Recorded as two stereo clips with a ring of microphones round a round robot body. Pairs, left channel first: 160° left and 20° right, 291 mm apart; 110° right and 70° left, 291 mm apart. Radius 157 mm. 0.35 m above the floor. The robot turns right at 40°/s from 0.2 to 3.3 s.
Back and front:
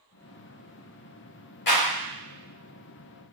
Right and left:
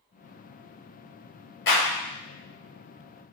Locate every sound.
1.7 s a clap: 155° right, 1.3 m; by 1.8 s 150° right, 1.3 m